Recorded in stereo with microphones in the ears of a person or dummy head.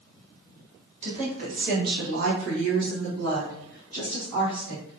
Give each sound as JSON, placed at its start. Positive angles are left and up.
{"t": 1.0, "sound": "a woman speaking", "side_deg": -35, "distance_m": 1.4}